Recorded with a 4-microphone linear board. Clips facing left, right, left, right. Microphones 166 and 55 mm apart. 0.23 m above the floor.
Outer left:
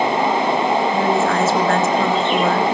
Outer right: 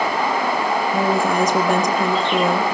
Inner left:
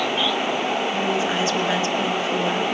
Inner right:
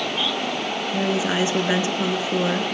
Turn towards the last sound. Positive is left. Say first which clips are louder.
# outer left 1 dB, even
turn(degrees=-15)  # may be behind; listen again after turning